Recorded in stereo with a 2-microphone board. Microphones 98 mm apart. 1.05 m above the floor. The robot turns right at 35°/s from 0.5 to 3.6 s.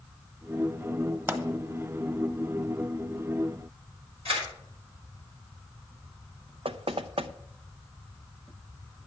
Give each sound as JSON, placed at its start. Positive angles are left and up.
{"t": 1.3, "sound": "a pop", "side_deg": -25, "distance_m": 1.3}
{"t": 4.2, "sound": "a camera shutter", "side_deg": -70, "distance_m": 5.5}
{"t": 6.7, "sound": "knocking", "side_deg": -70, "distance_m": 0.5}